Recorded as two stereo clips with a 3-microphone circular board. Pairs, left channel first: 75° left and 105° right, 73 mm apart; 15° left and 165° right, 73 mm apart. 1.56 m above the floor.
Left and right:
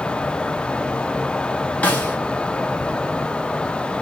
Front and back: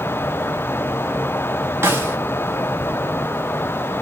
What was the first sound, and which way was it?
A snare drum, 140° left.